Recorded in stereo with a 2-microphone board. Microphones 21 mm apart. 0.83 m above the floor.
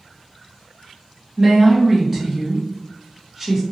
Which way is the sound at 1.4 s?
15° right (ahead or behind).